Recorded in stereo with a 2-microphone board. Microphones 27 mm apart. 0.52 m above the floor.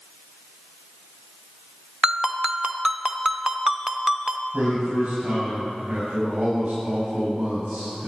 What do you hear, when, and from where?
2.0 s a ringtone: 25° right (ahead or behind), 0.7 m
4.5 s a man speaking: 55° right (ahead or behind), 4 m